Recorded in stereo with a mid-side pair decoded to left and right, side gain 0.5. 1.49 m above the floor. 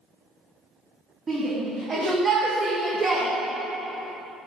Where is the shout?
40° right, 3 m; by 3.3 s 30° right, 1.5 m.